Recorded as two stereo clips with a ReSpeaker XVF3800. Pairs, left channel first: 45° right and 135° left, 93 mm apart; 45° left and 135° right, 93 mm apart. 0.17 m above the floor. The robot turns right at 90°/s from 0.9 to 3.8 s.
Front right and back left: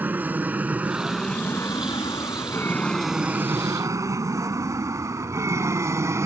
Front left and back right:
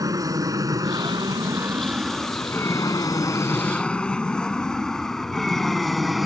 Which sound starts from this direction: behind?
An aircraft, at 0.0 s.